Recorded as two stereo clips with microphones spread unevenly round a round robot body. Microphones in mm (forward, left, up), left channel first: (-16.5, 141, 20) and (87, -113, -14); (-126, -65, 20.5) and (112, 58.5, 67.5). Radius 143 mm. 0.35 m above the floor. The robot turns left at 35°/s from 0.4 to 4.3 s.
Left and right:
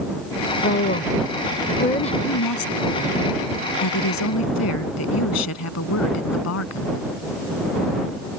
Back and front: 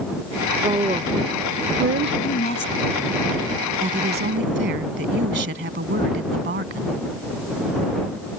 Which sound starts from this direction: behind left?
A woman speaking, at 2.2 s.